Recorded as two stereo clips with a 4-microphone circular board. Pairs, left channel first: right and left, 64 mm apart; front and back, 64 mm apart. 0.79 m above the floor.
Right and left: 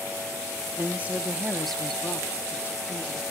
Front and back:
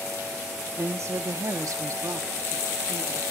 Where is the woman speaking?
140° left, 1.0 m; by 3.2 s 130° right, 1.6 m.